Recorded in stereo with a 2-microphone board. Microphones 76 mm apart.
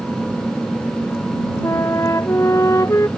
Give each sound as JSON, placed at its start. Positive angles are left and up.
{"t": 1.6, "sound": "a flute", "side_deg": 40}